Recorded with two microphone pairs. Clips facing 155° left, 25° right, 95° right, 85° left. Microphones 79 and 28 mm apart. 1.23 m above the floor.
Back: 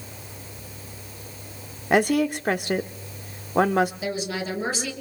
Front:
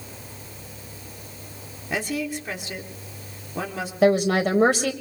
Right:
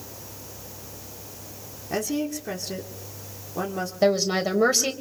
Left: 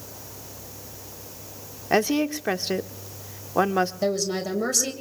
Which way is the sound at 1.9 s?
130° left.